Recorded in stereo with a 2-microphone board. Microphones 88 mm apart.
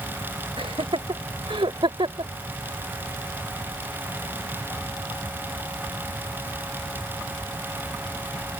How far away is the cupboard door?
No cupboard door in this recording.